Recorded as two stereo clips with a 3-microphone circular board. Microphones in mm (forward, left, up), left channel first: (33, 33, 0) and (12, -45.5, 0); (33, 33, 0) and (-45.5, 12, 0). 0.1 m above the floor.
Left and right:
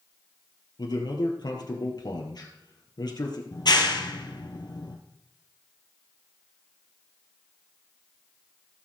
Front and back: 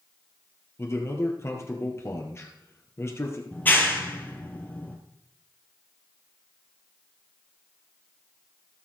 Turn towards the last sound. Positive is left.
turn(degrees=80)